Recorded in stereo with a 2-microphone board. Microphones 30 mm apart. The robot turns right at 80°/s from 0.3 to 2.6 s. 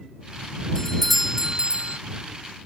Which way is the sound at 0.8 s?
155° left.